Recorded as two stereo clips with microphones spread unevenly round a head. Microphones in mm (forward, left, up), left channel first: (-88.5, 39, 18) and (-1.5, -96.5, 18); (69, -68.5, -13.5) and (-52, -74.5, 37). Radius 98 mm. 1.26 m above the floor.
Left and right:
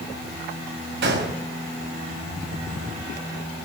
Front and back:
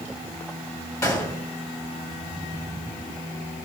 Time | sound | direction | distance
1.0 | a gunshot | 60° right | 7 m